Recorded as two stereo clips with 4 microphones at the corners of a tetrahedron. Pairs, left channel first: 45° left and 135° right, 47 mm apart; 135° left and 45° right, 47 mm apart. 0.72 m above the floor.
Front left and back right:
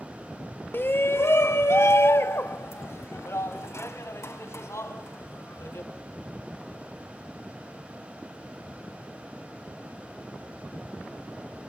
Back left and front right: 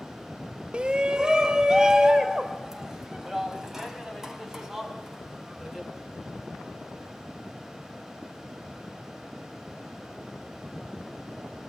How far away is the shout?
About 0.7 m.